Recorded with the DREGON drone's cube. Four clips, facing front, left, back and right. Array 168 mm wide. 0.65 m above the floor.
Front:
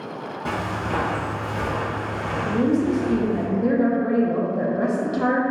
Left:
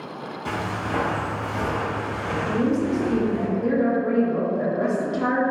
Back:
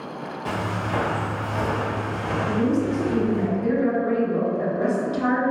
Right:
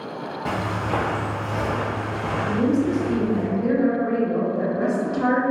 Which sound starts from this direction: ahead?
A woman speaking, at 2.5 s.